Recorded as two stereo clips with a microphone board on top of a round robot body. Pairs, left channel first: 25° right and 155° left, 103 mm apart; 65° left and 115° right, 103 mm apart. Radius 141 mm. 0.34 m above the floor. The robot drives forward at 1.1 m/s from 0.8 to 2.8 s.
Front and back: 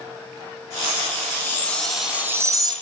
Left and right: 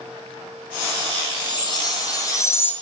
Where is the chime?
35° left, 1.5 m; by 2.7 s 130° left, 1.3 m.